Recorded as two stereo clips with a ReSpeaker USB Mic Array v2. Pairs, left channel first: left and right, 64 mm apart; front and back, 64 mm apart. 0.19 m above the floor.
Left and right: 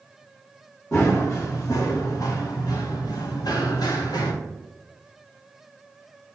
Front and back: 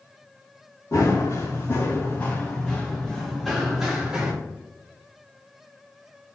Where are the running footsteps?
40° left, 1.8 m; by 4.3 s 100° left, 1.9 m.